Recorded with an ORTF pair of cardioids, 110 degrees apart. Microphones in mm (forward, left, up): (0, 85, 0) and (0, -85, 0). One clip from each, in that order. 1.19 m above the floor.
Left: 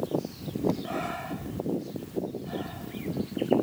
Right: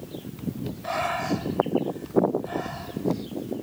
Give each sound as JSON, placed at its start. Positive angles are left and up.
{"t": 0.8, "sound": "breathing", "azimuth_deg": -45}